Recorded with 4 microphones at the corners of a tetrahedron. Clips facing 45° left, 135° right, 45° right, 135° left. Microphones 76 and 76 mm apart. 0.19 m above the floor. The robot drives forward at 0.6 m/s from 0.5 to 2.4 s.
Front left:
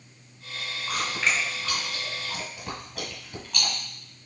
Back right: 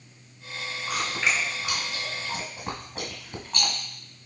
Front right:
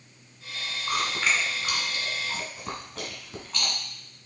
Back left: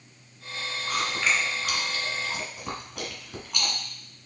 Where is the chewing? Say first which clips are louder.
Even, even; 40° right, 1.3 m; by 3.7 s 155° right, 1.4 m.